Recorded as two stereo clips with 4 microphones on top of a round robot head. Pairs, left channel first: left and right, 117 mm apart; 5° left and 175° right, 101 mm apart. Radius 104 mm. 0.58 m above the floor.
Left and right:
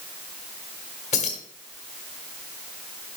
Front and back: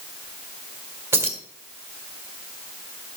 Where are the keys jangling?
115° left, 1.6 m.